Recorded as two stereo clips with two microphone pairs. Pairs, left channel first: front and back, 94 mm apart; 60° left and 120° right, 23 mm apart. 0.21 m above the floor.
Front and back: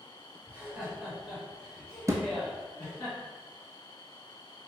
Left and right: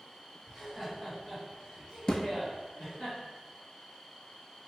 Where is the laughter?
130° left, 1.6 m; by 3.1 s 70° left, 2.5 m.